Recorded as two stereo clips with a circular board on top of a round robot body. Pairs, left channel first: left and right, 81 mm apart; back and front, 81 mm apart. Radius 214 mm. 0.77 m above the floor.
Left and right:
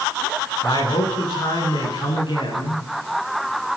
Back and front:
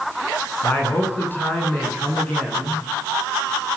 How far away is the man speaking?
About 9.5 m.